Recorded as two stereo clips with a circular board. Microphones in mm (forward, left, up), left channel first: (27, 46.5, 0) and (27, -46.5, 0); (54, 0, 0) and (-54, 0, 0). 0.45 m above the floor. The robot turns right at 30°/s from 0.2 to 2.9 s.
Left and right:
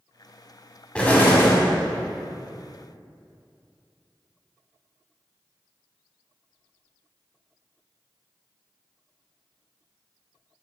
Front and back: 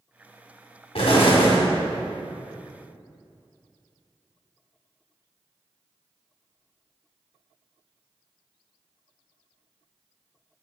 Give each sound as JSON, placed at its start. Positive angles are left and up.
{"t": 0.9, "sound": "an explosion", "azimuth_deg": 10, "distance_m": 1.6}